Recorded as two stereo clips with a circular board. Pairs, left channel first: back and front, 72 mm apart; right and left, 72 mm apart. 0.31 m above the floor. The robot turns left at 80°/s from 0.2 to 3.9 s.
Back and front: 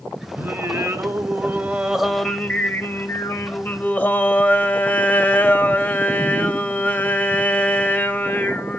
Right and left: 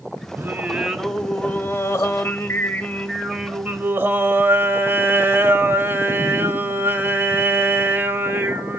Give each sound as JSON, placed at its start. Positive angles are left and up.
{"t": 0.4, "sound": "singing", "azimuth_deg": 50, "distance_m": 0.6}